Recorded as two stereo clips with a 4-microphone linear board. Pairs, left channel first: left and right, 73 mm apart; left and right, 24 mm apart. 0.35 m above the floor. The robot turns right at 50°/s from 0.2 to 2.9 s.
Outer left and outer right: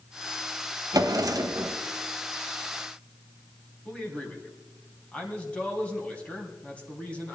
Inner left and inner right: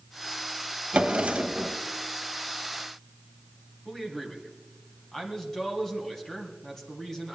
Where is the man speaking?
20° left (ahead or behind), 2.5 m.